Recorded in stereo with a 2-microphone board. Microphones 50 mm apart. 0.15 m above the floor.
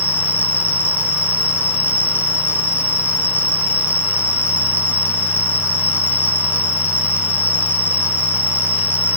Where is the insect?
55° left (ahead or behind), 0.8 m.